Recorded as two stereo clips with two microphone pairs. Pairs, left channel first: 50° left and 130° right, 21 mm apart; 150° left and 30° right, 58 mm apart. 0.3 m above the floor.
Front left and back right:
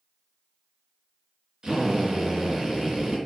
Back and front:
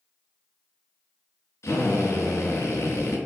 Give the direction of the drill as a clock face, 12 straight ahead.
6 o'clock.